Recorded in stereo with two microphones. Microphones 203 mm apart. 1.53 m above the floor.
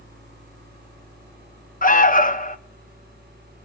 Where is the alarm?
45° left (ahead or behind), 0.8 m.